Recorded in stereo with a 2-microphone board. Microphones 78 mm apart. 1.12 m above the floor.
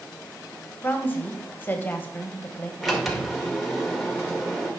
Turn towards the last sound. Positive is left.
turn(degrees=0)  # may be behind; listen again after turning